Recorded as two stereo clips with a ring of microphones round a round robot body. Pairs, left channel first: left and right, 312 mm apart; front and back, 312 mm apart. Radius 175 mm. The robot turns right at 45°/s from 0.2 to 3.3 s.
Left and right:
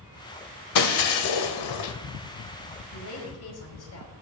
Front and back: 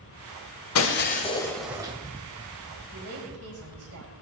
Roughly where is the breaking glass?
Ahead left.